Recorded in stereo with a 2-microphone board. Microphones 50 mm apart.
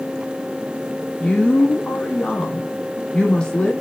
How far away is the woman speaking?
About 1.5 m.